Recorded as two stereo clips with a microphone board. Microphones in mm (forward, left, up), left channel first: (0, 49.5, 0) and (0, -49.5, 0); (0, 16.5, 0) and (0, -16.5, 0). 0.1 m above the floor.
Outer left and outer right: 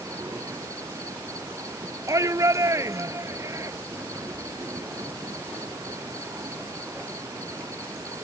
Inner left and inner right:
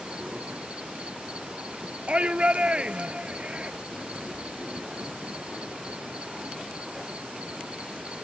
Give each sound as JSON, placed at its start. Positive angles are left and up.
{"t": 0.0, "sound": "an insect", "side_deg": -35}
{"t": 2.1, "sound": "a shout", "side_deg": -35}